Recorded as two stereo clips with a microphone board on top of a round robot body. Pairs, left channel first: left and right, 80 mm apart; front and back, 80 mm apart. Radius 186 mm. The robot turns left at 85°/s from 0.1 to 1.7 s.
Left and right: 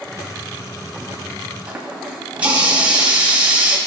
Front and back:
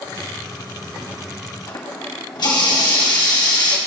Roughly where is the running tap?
Ahead.